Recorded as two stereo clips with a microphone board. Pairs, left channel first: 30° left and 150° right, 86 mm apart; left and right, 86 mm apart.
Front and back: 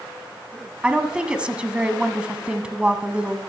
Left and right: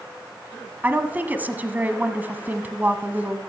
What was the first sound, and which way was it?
A woman speaking, 95° right.